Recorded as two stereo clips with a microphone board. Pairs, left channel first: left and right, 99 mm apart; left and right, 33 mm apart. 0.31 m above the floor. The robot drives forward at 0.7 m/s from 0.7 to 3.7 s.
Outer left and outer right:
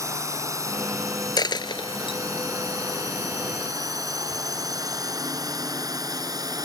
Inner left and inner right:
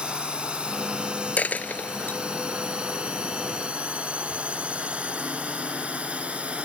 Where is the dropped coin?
45° left (ahead or behind); by 2.2 s 60° left (ahead or behind).